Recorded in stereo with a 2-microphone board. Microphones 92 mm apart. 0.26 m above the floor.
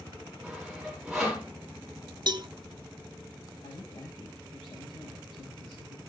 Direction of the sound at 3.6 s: 60° left (ahead or behind).